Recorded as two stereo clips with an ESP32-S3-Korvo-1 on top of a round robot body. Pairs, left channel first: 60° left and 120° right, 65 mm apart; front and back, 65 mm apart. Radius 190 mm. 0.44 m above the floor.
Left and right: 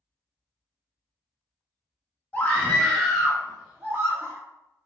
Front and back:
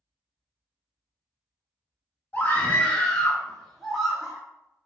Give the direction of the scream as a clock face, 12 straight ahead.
11 o'clock.